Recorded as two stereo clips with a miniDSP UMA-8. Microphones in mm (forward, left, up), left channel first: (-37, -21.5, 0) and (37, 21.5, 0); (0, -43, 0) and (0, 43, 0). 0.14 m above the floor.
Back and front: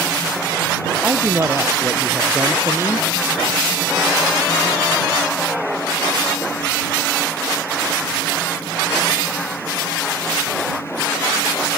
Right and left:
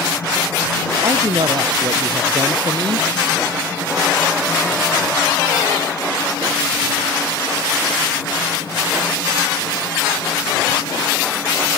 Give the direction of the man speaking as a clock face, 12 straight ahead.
9 o'clock.